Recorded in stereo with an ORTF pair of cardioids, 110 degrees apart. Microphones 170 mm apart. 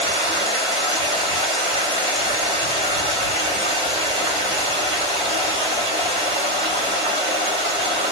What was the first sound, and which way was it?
Running water, 35° right.